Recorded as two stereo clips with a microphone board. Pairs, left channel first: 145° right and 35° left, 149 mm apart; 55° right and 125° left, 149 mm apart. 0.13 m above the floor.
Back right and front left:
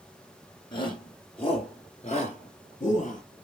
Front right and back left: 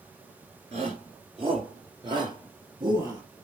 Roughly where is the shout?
Behind.